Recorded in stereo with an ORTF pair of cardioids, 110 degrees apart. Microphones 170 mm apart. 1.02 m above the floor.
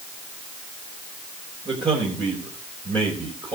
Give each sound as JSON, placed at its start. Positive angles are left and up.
{"t": 1.6, "sound": "a man speaking", "azimuth_deg": -30, "distance_m": 4.0}